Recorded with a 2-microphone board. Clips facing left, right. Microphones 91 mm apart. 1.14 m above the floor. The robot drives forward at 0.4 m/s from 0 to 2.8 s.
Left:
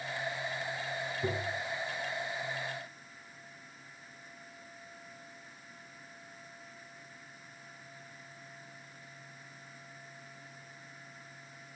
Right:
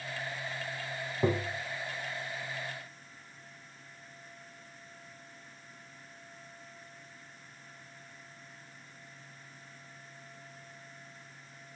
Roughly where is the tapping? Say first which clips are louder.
Right 6 dB; right.